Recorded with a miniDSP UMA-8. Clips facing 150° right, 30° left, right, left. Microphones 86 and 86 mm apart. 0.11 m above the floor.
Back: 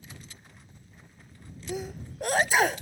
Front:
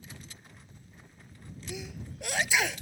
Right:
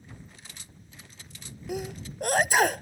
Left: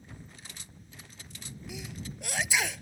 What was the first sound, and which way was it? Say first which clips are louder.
A sneeze: back 7 dB, right 9 dB; 115° right.